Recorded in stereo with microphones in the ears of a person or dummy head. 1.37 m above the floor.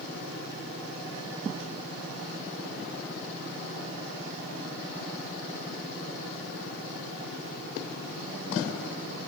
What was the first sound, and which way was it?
Only background noise.